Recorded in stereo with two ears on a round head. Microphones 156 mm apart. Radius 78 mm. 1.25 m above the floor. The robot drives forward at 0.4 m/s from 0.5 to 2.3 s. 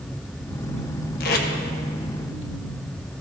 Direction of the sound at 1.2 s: 55° left (ahead or behind).